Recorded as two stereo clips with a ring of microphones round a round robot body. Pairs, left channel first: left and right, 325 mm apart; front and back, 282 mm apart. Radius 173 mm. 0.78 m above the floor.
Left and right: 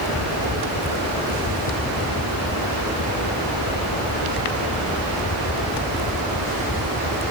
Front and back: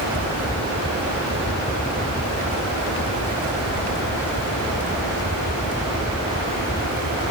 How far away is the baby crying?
I don't hear a baby crying.